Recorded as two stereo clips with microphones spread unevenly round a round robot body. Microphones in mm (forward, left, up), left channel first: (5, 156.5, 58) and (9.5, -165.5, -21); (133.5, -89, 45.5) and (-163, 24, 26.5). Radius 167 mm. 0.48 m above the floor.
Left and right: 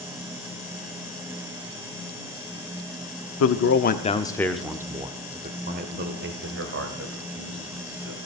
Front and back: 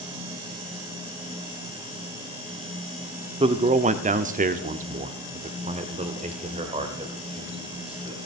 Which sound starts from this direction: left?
A man speaking, at 3.4 s.